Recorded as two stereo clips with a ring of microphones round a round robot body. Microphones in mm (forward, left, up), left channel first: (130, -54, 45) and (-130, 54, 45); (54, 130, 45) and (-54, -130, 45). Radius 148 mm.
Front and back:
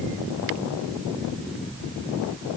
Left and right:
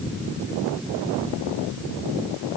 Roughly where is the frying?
I don't hear frying.